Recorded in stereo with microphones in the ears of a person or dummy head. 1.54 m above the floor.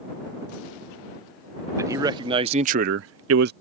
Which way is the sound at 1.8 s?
15° right (ahead or behind).